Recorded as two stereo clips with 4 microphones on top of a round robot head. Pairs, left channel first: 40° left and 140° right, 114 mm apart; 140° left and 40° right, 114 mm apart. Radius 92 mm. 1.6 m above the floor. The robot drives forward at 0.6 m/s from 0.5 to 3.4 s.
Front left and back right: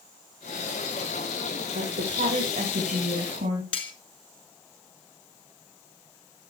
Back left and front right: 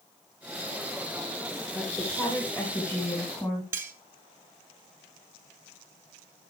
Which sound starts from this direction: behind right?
A woman speaking, at 1.8 s.